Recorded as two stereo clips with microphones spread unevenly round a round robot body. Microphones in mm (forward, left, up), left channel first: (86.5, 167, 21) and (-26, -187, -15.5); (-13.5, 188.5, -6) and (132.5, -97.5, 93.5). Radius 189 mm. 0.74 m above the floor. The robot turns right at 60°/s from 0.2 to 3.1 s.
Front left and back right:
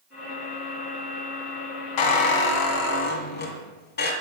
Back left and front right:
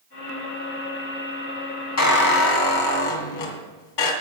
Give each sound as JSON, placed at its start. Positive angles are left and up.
{"t": 2.0, "sound": "a squeak", "azimuth_deg": 70, "distance_m": 2.0}